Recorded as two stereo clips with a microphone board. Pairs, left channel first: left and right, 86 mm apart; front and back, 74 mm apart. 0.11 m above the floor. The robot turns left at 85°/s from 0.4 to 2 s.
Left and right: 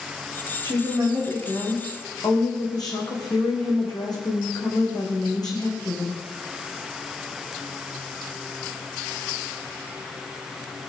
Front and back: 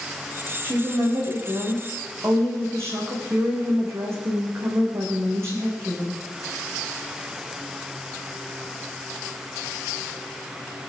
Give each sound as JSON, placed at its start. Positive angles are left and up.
{"t": 0.6, "sound": "a woman speaking", "azimuth_deg": -115, "distance_m": 5.5}